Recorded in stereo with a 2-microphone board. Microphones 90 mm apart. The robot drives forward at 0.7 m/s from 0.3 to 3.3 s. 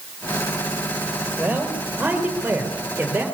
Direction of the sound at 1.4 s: 15° right (ahead or behind).